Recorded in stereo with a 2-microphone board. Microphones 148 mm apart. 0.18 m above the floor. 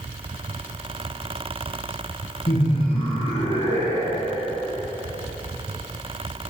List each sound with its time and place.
2.5 s laughter: 45° left (ahead or behind), 2 m; by 4.5 s 20° left (ahead or behind), 1.8 m